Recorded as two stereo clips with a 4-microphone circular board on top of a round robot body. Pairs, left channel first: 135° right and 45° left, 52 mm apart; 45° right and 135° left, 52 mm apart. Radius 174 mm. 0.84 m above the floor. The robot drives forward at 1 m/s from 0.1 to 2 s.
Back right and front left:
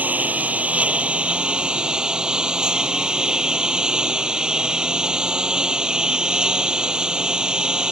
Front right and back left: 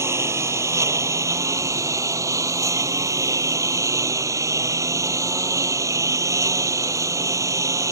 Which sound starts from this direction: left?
A lawn mower, at 0.0 s.